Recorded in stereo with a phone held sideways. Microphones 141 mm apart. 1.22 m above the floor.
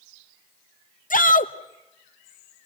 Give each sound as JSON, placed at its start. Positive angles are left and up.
{"t": 1.1, "sound": "a shout", "side_deg": 75, "distance_m": 1.2}